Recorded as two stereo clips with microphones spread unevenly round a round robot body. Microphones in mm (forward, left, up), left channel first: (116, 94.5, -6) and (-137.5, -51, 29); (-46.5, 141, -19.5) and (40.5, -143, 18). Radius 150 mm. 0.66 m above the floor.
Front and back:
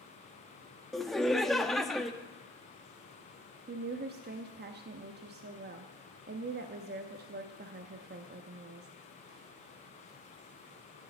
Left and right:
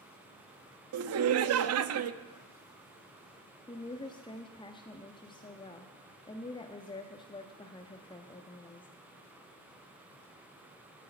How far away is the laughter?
About 0.6 m.